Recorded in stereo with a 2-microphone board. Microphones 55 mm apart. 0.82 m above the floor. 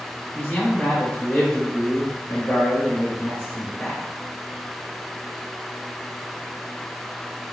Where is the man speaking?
10° left (ahead or behind), 1.9 m.